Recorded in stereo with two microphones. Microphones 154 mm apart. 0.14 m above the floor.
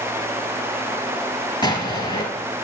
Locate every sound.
1.6 s an explosion: 30° left (ahead or behind), 1.5 m